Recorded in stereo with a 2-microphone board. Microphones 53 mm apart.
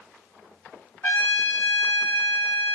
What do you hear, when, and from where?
1.0 s a trumpet: 50° left (ahead or behind), 1.3 m